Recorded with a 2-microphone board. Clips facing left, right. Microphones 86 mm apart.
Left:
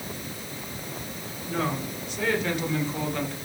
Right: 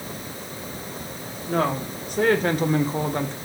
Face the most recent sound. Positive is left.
turn(degrees=-30)  # may be behind; listen again after turning